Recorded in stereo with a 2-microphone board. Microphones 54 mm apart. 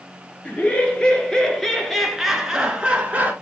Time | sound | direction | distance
0.5 | laughter | 25° left (ahead or behind) | 1.7 m